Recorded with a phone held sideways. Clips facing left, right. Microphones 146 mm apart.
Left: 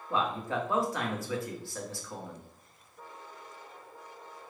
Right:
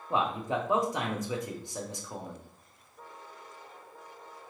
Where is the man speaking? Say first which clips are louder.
Right 1 dB; 20° right (ahead or behind), 0.8 m.